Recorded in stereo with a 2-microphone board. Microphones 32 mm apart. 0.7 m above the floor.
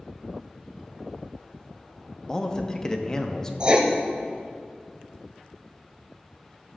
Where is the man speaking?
20° left (ahead or behind), 0.6 m.